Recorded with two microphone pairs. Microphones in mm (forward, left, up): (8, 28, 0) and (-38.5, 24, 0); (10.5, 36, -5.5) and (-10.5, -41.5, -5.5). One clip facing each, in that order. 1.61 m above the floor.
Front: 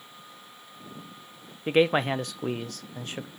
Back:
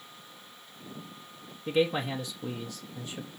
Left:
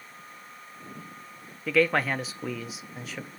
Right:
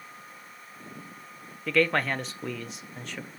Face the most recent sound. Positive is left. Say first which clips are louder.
# front 5 dB, left 1 dB
turn(degrees=-10)